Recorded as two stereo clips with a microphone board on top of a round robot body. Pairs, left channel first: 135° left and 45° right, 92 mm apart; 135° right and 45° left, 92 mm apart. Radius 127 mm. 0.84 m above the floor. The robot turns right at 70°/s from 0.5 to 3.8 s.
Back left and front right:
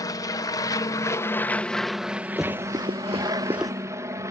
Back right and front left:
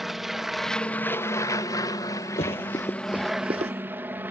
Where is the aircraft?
130° left; by 4.3 s 10° right.